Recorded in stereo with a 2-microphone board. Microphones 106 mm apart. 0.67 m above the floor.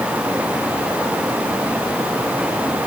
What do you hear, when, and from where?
Only background noise.